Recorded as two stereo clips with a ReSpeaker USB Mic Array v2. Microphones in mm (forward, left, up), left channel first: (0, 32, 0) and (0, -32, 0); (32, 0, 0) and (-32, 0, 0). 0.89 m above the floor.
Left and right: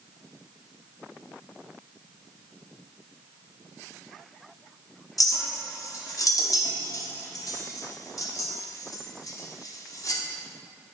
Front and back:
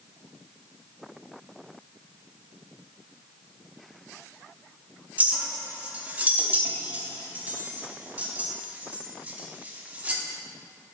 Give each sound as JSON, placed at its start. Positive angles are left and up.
{"t": 5.2, "sound": "a clink", "azimuth_deg": 115, "distance_m": 0.7}